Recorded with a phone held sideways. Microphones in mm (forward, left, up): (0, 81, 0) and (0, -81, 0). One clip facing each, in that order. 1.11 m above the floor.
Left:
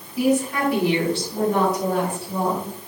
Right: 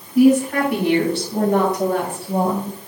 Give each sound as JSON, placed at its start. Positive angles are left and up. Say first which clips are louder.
{"t": 0.1, "sound": "a woman speaking", "louder": "right 7 dB", "side_deg": -70, "distance_m": 6.0}